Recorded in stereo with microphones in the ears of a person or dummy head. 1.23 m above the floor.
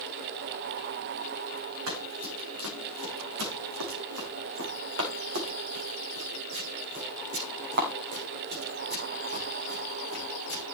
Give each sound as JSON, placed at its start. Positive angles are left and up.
{"t": 1.9, "sound": "running footsteps", "side_deg": -80, "distance_m": 6.0}